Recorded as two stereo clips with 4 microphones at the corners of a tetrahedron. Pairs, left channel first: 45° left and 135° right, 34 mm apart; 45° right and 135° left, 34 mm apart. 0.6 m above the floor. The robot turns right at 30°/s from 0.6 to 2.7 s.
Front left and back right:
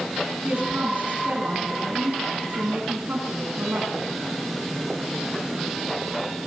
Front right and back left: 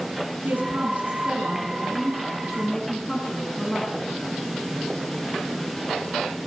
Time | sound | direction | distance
0.4 | a woman speaking | 175° left | 6 m